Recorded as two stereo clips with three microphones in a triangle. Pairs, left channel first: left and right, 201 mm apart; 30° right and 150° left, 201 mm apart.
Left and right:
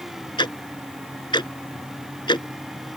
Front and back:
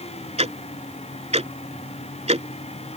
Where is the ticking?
135° left.